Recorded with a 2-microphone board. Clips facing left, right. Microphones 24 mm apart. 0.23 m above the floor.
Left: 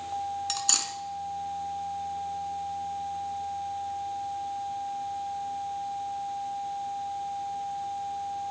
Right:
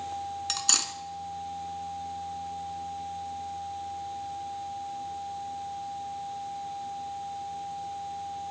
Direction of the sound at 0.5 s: 10° right (ahead or behind).